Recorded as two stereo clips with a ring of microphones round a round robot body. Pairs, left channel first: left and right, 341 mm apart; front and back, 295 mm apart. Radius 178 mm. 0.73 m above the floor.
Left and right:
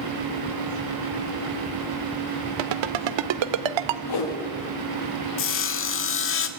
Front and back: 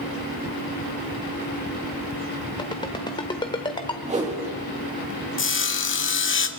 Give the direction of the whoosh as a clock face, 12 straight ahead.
8 o'clock.